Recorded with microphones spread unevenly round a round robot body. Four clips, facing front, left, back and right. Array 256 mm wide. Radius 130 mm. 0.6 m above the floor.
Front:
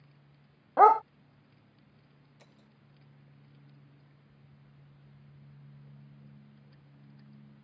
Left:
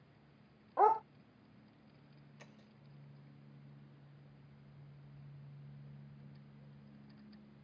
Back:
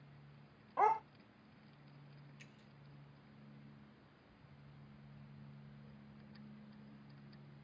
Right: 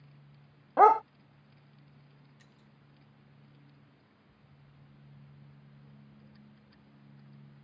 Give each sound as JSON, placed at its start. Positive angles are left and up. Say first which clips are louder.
{"t": 0.8, "sound": "a dog barking", "louder": "right 9 dB, front 13 dB", "azimuth_deg": -55}
{"t": 2.4, "sound": "breaking glass", "louder": "left 2 dB, front 1 dB", "azimuth_deg": 50}